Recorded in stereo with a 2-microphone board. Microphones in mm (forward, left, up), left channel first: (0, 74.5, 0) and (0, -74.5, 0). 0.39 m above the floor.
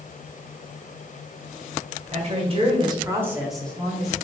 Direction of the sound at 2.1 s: 50° right (ahead or behind).